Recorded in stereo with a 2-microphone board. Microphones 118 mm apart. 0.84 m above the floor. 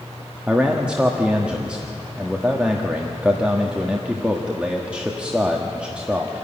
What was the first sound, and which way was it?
A man speaking, 10° right (ahead or behind).